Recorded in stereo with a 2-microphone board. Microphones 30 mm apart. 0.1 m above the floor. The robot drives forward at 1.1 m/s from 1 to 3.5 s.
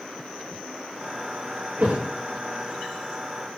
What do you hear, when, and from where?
1.8 s a thud: 70° right (ahead or behind), 4 m; by 2.0 s 75° right (ahead or behind), 4 m